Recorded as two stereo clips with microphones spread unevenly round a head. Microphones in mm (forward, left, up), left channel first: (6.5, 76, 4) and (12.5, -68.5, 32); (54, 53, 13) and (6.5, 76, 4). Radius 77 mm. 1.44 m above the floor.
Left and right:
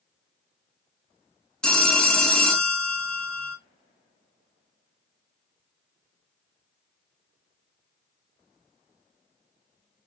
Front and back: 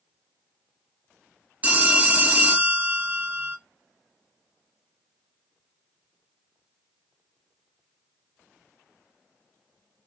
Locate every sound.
1.6 s a phone ringing: 160° right, 0.7 m